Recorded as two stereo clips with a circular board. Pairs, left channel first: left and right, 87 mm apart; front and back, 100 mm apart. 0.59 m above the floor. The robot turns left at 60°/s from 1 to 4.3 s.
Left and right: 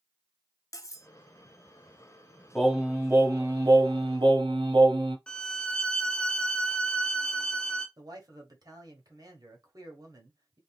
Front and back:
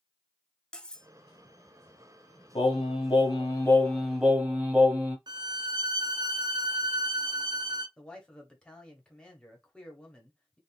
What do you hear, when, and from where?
0.7 s cutlery clinking: 75° left, 0.5 m; by 1.1 s 70° left, 0.5 m
2.5 s singing: straight ahead, 1.3 m; by 5.2 s 105° right, 1.3 m
5.3 s a violin: 165° left, 0.6 m
8.0 s a man speaking: 80° right, 1.5 m